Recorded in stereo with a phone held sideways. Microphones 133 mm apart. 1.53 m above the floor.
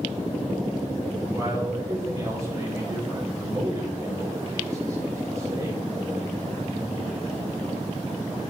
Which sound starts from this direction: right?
A man speaking, at 1.3 s.